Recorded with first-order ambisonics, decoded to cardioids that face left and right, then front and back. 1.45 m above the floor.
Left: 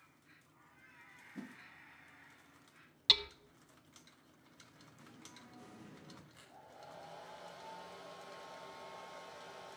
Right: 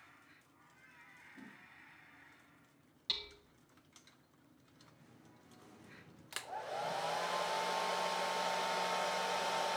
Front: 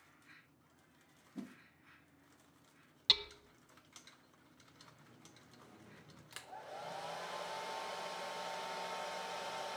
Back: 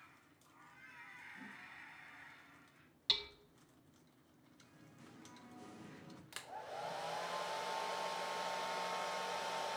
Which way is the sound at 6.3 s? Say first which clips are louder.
Right 16 dB, back 2 dB; 95° right.